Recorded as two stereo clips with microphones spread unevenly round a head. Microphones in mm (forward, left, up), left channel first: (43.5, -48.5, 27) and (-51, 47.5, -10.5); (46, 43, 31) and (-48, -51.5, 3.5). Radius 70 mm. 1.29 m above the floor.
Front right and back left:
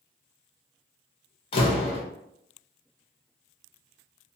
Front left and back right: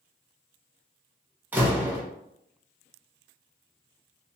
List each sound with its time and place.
1.5 s a door slam: 50° right, 0.7 m